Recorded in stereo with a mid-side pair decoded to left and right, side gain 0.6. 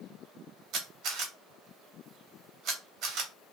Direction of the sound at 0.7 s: 65° right.